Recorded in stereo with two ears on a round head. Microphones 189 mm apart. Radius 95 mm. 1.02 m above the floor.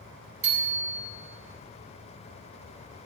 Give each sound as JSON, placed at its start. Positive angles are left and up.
{"t": 0.4, "sound": "a bicycle bell", "side_deg": -65, "distance_m": 4.5}